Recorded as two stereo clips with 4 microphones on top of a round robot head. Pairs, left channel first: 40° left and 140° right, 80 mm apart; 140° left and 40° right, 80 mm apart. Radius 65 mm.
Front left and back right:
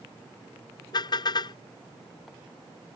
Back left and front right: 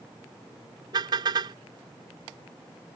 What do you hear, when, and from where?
0.9 s a car horn: straight ahead